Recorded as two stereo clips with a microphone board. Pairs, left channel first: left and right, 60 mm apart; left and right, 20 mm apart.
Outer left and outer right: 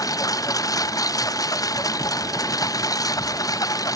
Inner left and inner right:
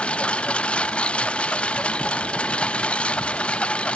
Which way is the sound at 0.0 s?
75° left (ahead or behind).